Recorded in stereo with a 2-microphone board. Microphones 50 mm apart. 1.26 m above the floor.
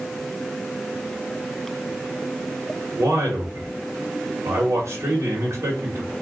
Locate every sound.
3.0 s a man speaking: 65° right (ahead or behind), 1.2 m